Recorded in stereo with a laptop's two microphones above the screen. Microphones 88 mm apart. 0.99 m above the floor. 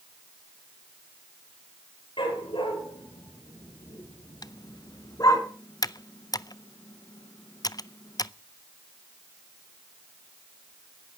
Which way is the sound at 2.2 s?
75° left (ahead or behind).